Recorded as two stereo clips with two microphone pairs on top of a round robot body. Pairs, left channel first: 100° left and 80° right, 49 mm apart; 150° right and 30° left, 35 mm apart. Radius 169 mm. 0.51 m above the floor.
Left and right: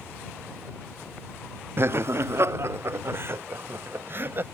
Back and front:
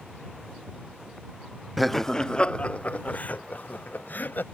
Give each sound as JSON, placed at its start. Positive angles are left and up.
{"t": 1.8, "sound": "laughter", "azimuth_deg": -60}